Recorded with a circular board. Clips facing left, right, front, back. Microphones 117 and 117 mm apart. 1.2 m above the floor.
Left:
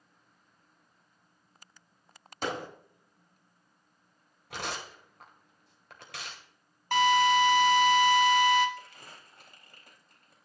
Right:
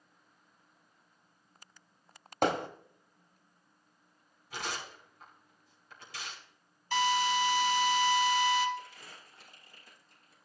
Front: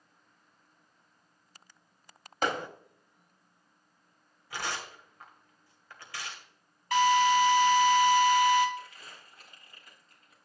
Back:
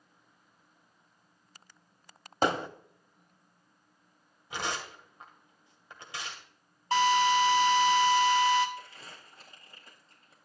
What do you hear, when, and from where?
2.4 s hammering: 120° right, 1.3 m
4.5 s tearing paper: 110° left, 2 m
6.9 s a drill: 120° left, 1.6 m
8.8 s crumpling: 120° left, 4 m